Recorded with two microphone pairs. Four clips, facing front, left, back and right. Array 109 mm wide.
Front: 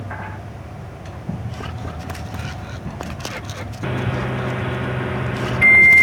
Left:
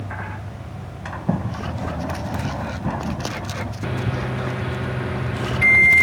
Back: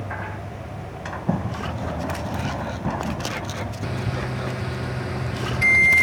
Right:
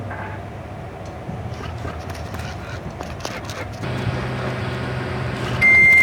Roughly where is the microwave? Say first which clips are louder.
Right 1 dB, front 7 dB; ahead.